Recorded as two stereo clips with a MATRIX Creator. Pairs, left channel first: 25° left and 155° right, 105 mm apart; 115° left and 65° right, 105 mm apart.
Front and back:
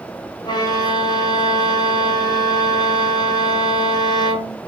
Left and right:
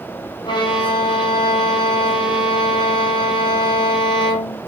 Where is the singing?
No singing in this recording.